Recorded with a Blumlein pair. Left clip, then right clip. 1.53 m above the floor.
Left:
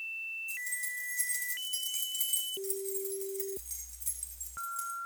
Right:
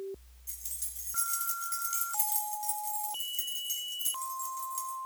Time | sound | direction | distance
0.5 | keys jangling | 40° right | 5.5 m